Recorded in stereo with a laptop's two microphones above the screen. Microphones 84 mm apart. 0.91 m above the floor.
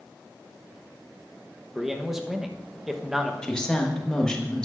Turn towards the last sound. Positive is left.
turn(degrees=10)  # may be behind; listen again after turning